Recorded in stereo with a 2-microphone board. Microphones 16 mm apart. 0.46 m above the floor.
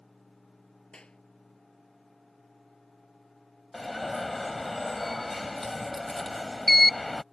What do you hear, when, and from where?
0.9 s a clap: 75° left (ahead or behind)
3.7 s an alarm: 5° left (ahead or behind)